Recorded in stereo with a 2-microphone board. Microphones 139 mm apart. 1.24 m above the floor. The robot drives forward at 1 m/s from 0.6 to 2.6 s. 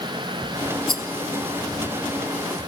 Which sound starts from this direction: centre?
A rattle, at 0.9 s.